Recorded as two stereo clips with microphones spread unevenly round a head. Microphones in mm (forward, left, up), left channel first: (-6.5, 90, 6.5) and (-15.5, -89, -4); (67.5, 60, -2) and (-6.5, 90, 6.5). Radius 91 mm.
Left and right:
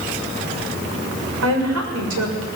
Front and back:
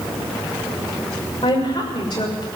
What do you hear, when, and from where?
1.4 s a woman speaking: 85° right, 6.5 m